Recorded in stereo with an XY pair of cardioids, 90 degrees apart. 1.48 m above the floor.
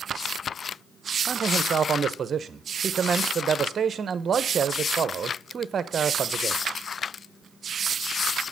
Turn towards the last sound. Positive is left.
turn(degrees=-50)